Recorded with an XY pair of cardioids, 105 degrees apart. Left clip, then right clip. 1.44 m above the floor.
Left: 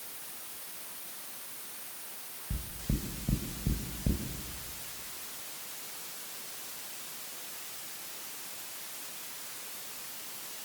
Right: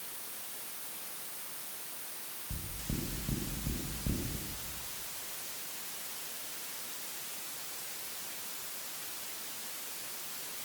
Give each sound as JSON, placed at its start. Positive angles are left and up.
{"t": 2.5, "sound": "knocking", "azimuth_deg": 40, "distance_m": 5.0}